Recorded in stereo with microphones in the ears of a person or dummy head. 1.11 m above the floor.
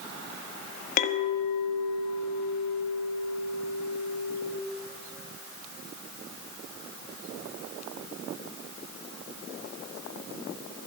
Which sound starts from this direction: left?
A clink, at 1.0 s.